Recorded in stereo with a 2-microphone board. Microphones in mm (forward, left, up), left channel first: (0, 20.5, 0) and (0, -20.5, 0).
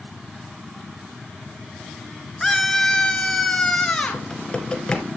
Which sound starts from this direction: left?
Typing on a keyboard, at 4.1 s.